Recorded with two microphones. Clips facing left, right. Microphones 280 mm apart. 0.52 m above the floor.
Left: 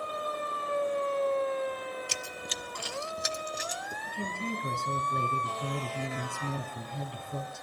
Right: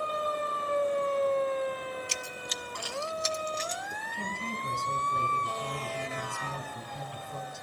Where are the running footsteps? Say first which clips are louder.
Even; 45° left (ahead or behind), 0.9 m; by 4.0 s 10° left (ahead or behind), 2 m.